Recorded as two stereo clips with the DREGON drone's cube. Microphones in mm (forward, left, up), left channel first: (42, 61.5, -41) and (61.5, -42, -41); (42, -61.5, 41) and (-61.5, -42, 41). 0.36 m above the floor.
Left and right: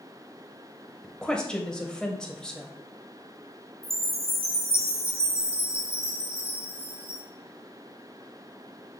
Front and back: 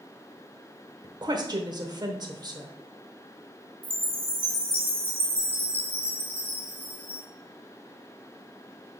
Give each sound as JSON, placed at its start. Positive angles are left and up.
{"t": 1.0, "sound": "a woman speaking", "azimuth_deg": 180, "distance_m": 1.0}
{"t": 3.8, "sound": "a chime", "azimuth_deg": 95, "distance_m": 2.0}